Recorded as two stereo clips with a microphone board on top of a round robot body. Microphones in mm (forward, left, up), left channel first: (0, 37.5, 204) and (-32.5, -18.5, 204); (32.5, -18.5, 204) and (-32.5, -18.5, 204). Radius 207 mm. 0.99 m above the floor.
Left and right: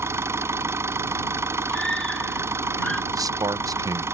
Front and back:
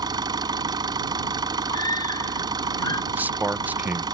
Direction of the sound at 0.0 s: 170° right.